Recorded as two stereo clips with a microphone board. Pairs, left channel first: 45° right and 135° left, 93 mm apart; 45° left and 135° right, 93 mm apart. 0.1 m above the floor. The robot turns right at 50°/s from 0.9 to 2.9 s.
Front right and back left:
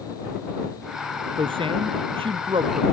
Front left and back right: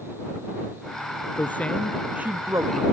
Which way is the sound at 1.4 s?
110° left.